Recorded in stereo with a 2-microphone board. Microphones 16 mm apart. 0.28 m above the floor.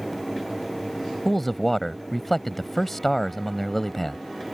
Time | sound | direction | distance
1.2 | a man speaking | 15° left (ahead or behind) | ?